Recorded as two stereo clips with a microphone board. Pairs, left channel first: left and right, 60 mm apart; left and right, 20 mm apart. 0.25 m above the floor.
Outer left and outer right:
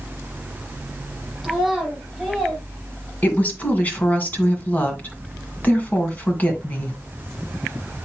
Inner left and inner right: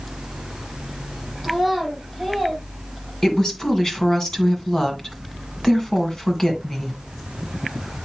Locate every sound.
1.4 s a child speaking: 5° left (ahead or behind), 4 m; by 2.6 s 15° left (ahead or behind), 5 m
3.2 s a woman speaking: 30° left (ahead or behind), 2 m